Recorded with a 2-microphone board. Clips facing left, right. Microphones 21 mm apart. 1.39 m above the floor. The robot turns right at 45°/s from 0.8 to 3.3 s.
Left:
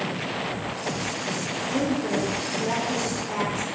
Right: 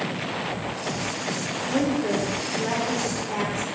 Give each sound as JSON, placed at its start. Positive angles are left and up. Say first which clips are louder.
{"t": 1.7, "sound": "a woman speaking", "louder": "right 2 dB", "side_deg": -85, "distance_m": 1.2}